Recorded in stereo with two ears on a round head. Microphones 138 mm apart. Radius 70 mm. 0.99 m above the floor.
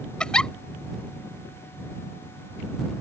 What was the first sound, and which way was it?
A giggle, 5° left (ahead or behind).